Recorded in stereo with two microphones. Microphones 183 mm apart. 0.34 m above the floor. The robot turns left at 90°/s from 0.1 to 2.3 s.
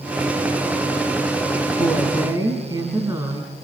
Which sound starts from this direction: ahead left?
A woman speaking, at 1.8 s.